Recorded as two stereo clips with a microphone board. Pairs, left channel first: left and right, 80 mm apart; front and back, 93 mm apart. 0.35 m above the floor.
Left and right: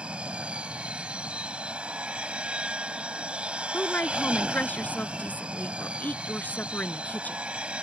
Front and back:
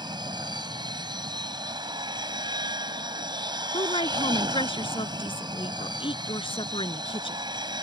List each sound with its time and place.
0.0 s an aircraft: 165° right
3.7 s a woman speaking: 20° left